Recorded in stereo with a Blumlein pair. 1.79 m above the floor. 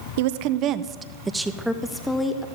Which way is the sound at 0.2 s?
55° right.